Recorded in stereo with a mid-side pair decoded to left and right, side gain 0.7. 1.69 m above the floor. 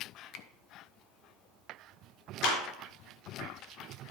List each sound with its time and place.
0.3 s a finger snap: 60° left, 0.8 m
2.4 s a clap: 60° left, 4 m